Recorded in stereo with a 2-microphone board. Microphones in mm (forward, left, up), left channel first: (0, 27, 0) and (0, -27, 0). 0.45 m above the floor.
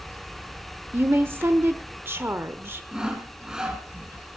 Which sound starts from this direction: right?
A woman speaking, at 0.9 s.